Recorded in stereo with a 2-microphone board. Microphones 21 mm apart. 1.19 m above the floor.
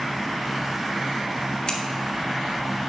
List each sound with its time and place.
1.7 s scissors: 45° left (ahead or behind), 1.2 m